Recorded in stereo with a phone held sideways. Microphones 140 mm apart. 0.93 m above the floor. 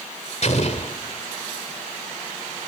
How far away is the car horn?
No car horn in this recording.